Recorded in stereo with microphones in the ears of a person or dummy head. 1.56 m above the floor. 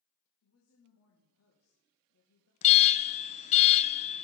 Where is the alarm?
35° left (ahead or behind), 0.5 m.